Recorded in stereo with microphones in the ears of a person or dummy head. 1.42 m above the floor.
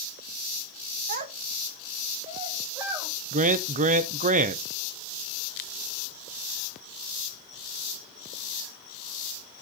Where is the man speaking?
35° right (ahead or behind), 0.6 m.